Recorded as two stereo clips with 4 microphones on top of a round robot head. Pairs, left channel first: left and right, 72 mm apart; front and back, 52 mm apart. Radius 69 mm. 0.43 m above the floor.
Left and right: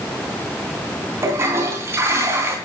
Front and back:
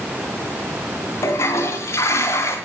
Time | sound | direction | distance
1.2 | a toilet flushing | 35° right | 3 m